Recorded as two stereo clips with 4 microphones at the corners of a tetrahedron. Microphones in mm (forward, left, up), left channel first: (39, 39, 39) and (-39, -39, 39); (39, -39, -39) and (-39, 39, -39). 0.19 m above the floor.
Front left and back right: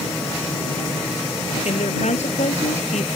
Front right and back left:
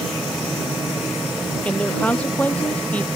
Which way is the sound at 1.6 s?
35° left.